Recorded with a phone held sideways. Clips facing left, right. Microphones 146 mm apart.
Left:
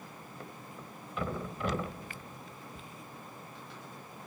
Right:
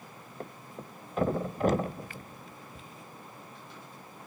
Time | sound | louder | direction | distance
0.4 | a thud | right 6 dB | 45° right (ahead or behind) | 1.0 m